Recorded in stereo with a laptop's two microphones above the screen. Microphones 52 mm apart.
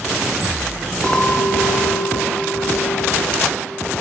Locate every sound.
1.0 s a clink: 15° left (ahead or behind), 0.7 m